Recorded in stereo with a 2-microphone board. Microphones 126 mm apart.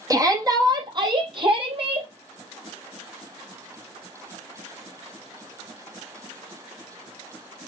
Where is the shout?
25° right (ahead or behind), 3.5 m; by 2.1 s 50° right (ahead or behind), 4.5 m.